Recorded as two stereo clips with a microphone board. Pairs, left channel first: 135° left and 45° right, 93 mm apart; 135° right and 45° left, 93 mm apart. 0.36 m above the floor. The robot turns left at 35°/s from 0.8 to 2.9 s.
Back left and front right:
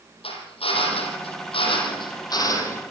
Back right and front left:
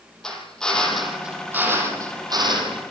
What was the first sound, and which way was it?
A drill, 140° left.